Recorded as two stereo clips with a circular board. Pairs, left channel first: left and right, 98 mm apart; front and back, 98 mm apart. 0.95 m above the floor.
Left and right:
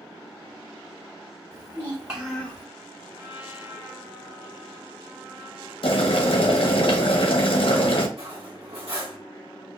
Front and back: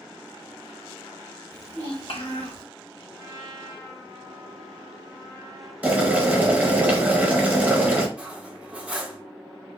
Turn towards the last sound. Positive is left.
turn(degrees=-105)